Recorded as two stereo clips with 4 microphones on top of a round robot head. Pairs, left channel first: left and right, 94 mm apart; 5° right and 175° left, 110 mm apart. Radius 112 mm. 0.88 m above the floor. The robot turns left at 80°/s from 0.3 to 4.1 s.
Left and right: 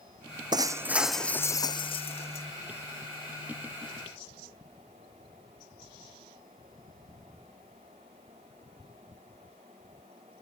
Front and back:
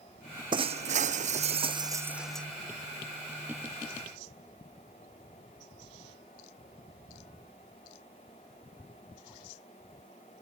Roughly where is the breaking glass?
Behind right.